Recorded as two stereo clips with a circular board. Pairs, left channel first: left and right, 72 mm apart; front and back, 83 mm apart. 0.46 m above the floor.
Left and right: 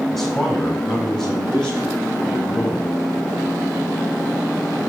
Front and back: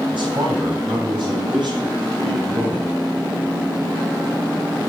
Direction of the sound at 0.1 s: 175° left.